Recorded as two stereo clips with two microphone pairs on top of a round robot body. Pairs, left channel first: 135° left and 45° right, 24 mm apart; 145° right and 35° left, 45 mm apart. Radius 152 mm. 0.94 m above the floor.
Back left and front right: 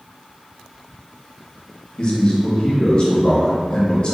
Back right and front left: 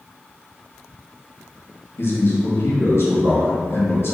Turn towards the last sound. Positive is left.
turn(degrees=-175)